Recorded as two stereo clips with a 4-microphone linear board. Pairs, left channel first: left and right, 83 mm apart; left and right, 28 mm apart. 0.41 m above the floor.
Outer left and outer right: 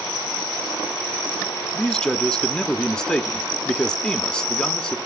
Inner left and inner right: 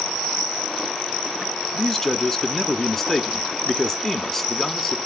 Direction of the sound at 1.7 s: 10° left (ahead or behind).